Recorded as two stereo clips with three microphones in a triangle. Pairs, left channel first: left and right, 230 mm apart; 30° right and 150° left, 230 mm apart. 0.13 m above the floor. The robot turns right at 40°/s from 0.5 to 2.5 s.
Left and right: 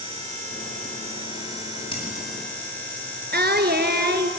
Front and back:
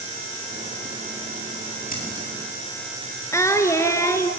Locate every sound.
1.9 s scissors: 20° left, 8 m; by 2.3 s 35° left, 8 m
3.3 s singing: 105° right, 1.4 m